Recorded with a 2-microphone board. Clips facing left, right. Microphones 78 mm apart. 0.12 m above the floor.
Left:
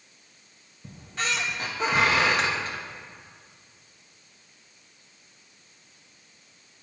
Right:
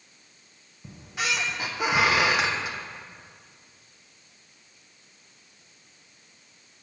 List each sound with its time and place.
0.8 s a squeak: 10° right (ahead or behind), 1.0 m